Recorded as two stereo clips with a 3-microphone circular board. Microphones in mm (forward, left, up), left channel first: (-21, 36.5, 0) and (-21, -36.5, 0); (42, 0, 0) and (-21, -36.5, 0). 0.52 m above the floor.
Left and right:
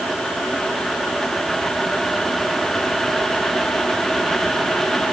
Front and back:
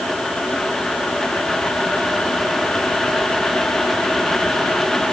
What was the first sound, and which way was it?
Only background noise.